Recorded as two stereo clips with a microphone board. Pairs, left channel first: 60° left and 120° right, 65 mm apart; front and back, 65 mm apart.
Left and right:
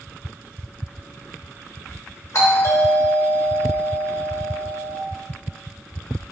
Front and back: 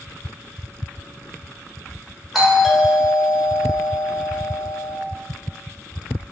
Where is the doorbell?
95° left, 0.8 m.